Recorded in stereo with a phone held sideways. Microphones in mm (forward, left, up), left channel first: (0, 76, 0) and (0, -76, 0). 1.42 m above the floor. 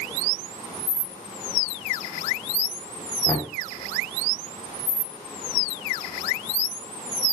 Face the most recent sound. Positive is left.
turn(degrees=20)  # may be behind; listen again after turning